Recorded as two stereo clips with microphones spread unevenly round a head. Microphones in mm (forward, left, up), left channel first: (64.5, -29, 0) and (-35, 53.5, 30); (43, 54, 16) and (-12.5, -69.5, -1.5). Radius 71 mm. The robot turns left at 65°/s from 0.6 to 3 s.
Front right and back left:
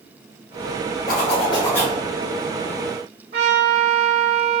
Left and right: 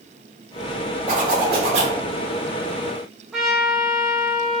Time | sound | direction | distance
1.1 | a zipper | 75° right | 1.2 m
3.3 | a trumpet | 165° left | 1.1 m